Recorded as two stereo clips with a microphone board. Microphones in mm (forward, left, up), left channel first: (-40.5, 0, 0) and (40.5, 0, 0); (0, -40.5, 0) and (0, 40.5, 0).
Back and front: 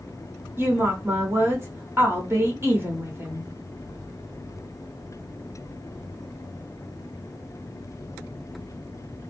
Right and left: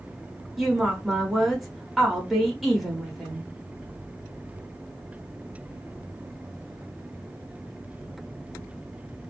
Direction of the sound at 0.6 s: Straight ahead.